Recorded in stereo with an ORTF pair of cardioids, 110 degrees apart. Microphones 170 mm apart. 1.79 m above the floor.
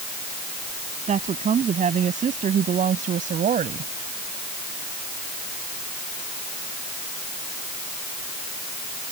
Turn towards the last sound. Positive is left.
turn(degrees=-50)